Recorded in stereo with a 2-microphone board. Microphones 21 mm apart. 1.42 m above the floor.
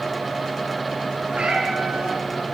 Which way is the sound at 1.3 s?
65° right (ahead or behind).